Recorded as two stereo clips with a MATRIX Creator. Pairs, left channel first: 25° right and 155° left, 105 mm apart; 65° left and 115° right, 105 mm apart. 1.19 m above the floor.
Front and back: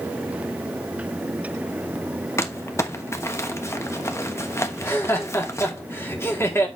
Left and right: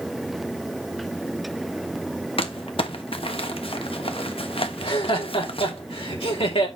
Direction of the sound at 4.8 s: 45° left.